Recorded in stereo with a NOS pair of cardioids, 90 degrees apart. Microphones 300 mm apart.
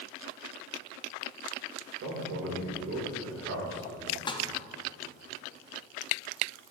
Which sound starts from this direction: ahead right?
A man speaking, at 2.0 s.